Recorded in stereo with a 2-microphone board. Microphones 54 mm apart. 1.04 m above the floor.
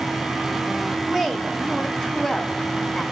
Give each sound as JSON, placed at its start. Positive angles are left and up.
{"t": 1.0, "sound": "a woman speaking", "side_deg": 0, "distance_m": 1.6}